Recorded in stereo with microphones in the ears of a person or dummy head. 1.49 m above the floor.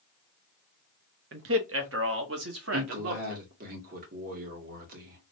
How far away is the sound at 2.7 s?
About 1.9 m.